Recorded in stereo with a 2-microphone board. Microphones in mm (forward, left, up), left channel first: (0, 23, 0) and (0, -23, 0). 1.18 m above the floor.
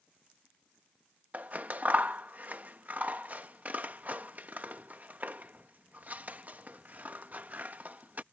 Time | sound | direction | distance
1.3 | scissors | 40° right (ahead or behind) | ?